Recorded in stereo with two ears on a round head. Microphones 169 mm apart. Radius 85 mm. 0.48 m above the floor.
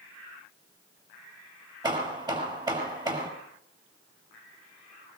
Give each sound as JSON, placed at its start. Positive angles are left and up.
{"t": 1.8, "sound": "hammering", "side_deg": -25, "distance_m": 5.5}